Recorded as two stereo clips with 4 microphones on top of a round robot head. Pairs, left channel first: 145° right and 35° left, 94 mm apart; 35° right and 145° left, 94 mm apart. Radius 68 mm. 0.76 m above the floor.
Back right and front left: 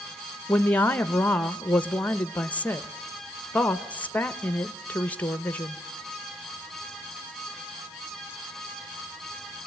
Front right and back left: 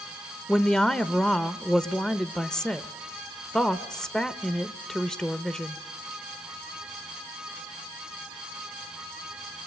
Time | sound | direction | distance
0.5 | a woman speaking | 105° right | 1.0 m